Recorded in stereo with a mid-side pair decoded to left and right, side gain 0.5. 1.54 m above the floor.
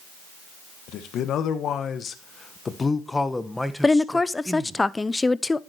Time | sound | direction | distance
0.9 | a man speaking | 70° left | 1.9 m
3.8 | a woman speaking | 15° left | 0.7 m